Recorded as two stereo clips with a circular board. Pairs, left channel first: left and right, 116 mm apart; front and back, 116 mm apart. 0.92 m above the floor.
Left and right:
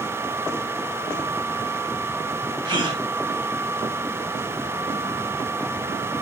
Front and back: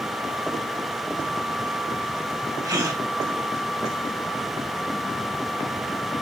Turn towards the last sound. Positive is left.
turn(degrees=-130)